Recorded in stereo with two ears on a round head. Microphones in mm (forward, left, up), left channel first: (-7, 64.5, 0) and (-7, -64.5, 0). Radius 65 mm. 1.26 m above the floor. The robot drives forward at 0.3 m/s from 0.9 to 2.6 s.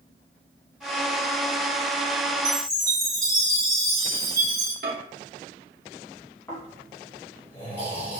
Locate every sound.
2.5 s a chime: 25° right (ahead or behind), 1.5 m
4.8 s a microwave: 70° right (ahead or behind), 1.0 m
6.5 s snoring: 15° left (ahead or behind), 2.5 m